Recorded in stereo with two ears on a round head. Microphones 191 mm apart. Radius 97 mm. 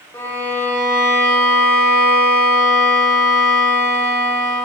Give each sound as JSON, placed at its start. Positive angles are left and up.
{"t": 0.1, "sound": "a violin", "side_deg": 15, "distance_m": 3.0}